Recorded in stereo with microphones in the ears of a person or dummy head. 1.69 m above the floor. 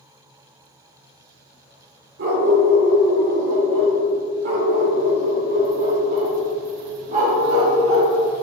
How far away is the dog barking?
About 2 m.